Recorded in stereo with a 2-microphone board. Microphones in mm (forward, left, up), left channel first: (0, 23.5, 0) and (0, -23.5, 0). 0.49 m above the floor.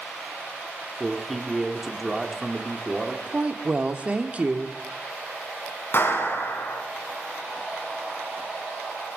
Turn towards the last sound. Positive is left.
turn(degrees=55)  # may be behind; listen again after turning